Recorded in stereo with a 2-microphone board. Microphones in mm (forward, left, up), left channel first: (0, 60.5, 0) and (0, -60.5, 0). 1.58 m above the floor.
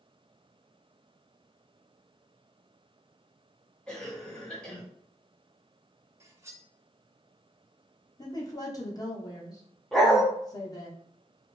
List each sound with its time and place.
3.9 s a cough: 5° left (ahead or behind), 2 m
6.2 s cutlery clinking: 25° right (ahead or behind), 0.7 m
8.2 s a woman speaking: 30° left (ahead or behind), 1.2 m
9.9 s a dog barking: centre (ahead or behind), 1.1 m